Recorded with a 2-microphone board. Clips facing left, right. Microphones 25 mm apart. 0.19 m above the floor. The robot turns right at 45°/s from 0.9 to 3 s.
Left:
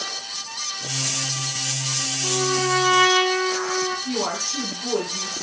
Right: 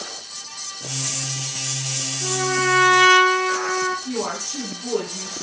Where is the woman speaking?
15° left (ahead or behind), 7.5 m.